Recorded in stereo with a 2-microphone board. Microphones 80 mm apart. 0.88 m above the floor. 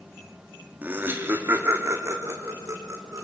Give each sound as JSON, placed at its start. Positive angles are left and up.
{"t": 0.8, "sound": "laughter", "side_deg": -25, "distance_m": 2.0}